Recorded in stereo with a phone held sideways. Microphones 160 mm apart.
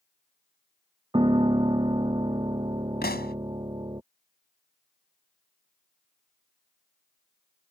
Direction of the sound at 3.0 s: 85° left.